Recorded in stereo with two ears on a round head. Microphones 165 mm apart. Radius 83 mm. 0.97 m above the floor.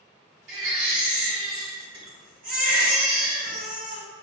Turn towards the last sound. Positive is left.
turn(degrees=-65)  # may be behind; listen again after turning